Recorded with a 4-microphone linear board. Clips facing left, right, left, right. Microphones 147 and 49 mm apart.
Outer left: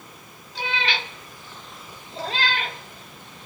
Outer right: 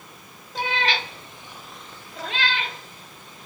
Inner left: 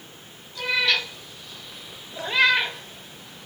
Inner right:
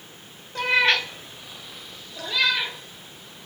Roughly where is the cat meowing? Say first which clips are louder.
Outer right 3 dB, inner right 3 dB; right.